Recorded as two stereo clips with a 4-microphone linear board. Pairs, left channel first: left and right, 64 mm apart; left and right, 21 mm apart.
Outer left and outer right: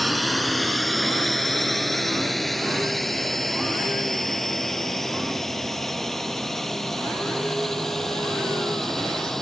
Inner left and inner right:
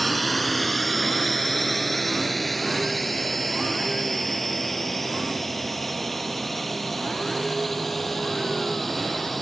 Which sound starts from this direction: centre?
A drone, at 0.0 s.